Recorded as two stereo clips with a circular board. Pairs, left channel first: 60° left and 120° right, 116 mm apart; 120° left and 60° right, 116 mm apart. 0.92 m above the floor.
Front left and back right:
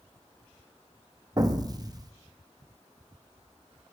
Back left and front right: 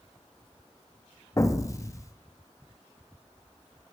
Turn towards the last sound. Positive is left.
turn(degrees=-175)